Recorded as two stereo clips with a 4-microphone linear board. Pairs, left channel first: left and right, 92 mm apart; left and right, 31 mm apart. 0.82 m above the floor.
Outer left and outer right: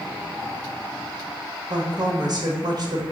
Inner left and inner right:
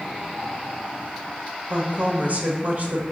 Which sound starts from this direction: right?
A woman speaking, at 1.7 s.